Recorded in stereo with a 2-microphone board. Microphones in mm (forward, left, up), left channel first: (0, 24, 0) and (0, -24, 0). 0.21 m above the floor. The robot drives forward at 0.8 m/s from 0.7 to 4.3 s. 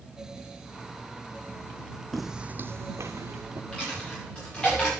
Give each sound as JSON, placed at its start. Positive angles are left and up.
{"t": 2.1, "sound": "footsteps", "side_deg": 0, "distance_m": 0.7}
{"t": 3.7, "sound": "a dropped coin", "side_deg": 20, "distance_m": 6.5}